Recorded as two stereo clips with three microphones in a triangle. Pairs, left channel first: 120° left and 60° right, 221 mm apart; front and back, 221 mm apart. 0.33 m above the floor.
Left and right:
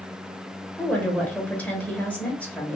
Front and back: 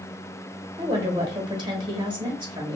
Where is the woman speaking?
170° right, 1.1 m.